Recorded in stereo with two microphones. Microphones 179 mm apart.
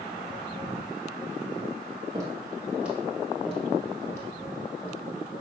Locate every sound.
2.1 s footsteps: 20° right (ahead or behind), 1.7 m; by 5.0 s 20° left (ahead or behind), 3 m